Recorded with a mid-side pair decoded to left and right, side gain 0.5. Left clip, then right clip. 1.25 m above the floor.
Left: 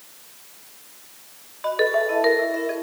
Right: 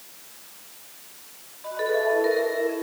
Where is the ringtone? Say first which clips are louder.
Left 3 dB; 65° left, 4.5 m.